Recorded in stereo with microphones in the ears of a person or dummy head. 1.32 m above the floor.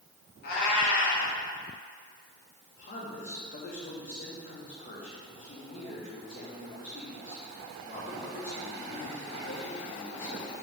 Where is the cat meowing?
60° left (ahead or behind), 3 m.